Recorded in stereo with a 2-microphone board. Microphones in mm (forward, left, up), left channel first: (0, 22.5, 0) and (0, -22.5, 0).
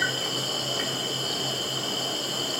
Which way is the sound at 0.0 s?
Centre (ahead or behind).